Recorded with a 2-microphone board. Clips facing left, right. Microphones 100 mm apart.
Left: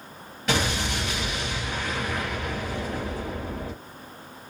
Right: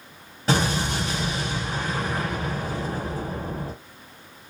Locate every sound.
0.5 s an explosion: 35° right (ahead or behind), 3.5 m